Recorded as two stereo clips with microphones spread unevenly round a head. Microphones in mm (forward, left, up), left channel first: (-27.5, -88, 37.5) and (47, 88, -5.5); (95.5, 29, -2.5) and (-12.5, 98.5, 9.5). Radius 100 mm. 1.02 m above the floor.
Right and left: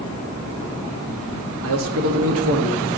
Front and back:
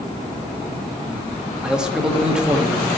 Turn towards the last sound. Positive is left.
turn(degrees=60)